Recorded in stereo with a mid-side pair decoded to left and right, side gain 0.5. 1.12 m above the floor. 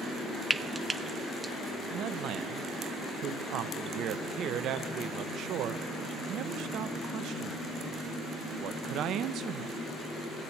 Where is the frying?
15° right, 0.7 m.